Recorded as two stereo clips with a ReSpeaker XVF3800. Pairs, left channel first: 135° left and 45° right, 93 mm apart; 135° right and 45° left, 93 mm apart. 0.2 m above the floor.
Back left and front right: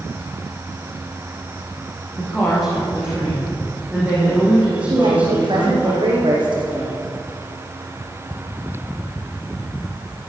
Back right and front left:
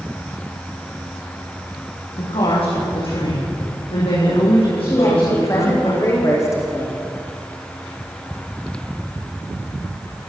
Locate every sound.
2.2 s a woman speaking: 130° right, 10 m; by 5.9 s 120° right, 12.5 m
4.9 s a woman speaking: 80° right, 9 m